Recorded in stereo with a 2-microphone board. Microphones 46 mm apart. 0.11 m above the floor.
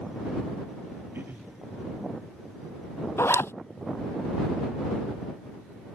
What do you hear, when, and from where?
1.1 s throat clearing: 55° right (ahead or behind)
3.2 s a zipper: 75° left (ahead or behind)